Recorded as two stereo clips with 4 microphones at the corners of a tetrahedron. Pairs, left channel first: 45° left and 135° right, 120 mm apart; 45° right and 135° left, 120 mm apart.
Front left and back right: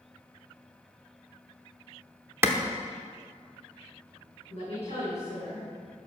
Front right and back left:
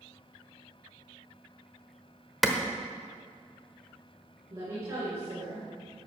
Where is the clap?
130° right, 0.9 m.